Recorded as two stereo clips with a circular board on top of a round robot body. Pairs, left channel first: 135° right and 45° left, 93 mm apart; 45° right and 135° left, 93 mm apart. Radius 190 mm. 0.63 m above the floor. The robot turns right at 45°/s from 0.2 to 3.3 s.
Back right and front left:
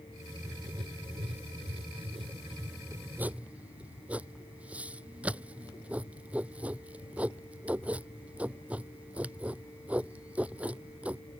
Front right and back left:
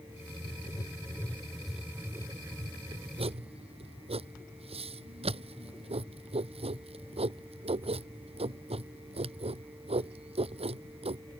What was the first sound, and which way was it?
Writing, 5° right.